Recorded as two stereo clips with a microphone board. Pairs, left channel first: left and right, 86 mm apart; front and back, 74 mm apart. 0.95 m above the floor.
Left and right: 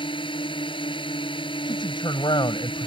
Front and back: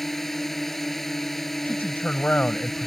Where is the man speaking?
70° left.